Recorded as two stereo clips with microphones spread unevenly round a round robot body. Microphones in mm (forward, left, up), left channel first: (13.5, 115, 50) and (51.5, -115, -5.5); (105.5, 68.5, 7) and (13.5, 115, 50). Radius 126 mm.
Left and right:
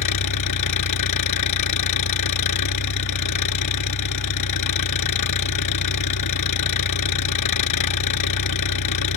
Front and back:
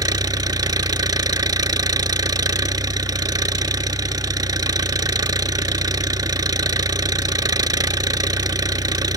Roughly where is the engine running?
Left.